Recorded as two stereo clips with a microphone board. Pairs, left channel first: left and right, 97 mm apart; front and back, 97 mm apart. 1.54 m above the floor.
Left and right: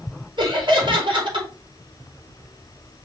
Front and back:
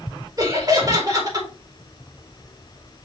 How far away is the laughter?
About 4.5 m.